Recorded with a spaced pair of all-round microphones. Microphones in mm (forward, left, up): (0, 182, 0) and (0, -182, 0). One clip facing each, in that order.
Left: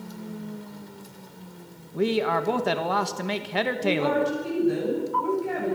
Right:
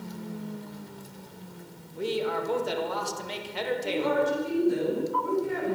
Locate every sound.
1.9 s a man speaking: 75° left (ahead or behind), 1.7 m
3.8 s a woman speaking: 80° left, 10 m